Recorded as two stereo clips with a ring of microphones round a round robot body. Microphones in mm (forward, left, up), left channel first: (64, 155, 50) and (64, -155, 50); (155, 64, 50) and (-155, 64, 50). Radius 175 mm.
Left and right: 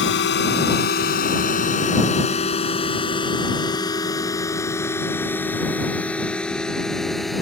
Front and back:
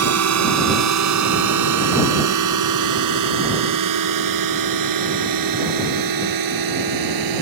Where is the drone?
145° left; by 7.4 s straight behind.